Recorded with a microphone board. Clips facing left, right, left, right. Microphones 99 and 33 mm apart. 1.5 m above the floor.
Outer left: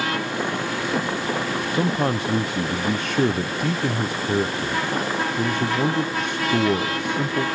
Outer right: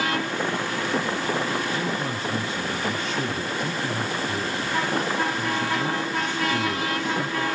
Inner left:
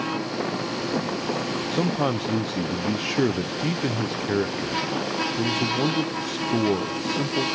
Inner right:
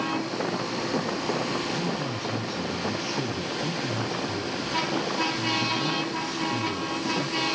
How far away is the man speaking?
About 0.5 m.